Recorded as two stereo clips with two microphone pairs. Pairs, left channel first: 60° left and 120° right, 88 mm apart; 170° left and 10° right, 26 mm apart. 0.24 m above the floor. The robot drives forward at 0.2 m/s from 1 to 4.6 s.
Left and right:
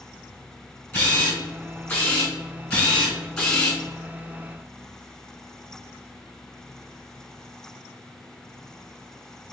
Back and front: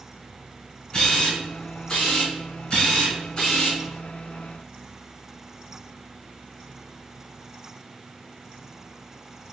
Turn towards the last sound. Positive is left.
turn(degrees=140)